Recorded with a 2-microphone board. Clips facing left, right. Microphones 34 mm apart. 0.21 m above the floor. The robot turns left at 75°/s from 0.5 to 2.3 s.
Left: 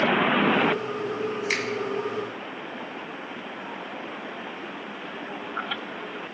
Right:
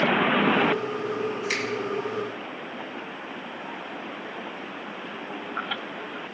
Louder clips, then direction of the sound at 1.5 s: Left 2 dB; 20° left (ahead or behind).